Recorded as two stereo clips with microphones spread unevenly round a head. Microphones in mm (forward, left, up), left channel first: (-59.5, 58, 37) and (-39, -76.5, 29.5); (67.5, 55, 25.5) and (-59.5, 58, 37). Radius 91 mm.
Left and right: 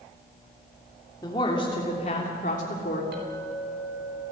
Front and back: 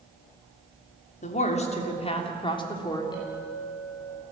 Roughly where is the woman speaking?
Ahead left.